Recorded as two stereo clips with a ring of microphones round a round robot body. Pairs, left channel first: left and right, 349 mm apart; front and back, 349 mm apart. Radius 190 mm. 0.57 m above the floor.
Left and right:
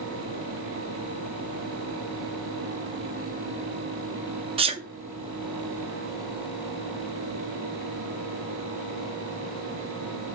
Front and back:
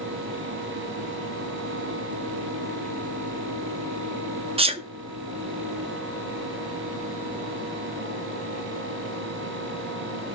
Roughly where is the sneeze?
Behind right.